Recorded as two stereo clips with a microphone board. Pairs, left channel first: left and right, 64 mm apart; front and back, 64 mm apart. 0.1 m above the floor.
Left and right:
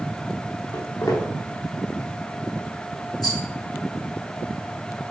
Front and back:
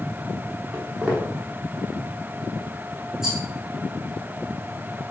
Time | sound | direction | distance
0.7 | footsteps | 105° left | 4.5 m
3.2 | a rattle | 100° left | 3 m